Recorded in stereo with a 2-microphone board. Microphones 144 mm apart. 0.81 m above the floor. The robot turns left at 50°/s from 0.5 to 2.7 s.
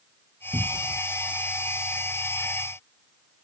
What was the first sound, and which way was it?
A cupboard door, 20° right (ahead or behind).